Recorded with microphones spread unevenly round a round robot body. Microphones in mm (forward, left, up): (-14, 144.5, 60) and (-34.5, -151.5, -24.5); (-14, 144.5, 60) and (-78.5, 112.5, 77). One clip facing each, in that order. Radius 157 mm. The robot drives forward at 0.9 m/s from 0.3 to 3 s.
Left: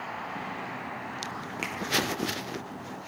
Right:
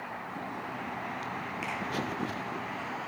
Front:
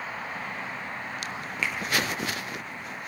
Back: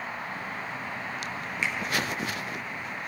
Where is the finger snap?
140° left, 5.5 m.